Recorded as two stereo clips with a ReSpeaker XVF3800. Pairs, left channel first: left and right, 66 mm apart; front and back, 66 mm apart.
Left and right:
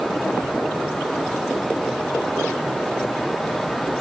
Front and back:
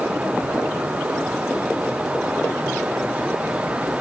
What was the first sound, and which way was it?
Only background noise.